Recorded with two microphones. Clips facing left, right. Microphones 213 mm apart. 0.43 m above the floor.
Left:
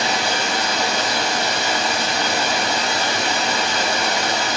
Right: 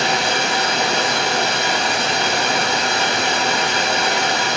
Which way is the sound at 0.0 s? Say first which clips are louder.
Right 2 dB; 70° right (ahead or behind).